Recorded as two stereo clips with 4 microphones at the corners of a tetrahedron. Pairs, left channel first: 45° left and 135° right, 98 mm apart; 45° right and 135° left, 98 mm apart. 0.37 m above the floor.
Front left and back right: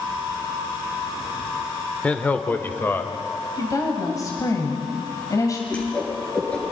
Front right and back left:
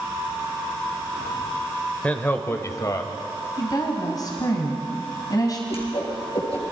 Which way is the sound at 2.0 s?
5° right.